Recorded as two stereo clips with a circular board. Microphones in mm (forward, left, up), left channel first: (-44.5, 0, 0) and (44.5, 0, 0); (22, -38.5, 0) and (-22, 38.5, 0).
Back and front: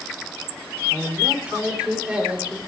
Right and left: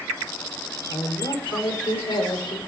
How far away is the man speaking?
About 4 m.